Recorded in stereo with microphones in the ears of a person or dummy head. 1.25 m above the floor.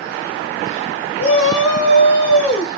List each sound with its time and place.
1.2 s a shout: 40° left (ahead or behind), 1.2 m